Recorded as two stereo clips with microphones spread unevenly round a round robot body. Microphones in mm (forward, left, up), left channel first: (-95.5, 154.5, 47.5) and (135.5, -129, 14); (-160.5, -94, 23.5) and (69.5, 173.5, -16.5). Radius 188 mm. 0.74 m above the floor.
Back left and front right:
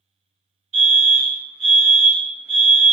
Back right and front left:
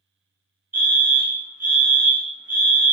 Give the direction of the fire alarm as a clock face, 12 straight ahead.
1 o'clock.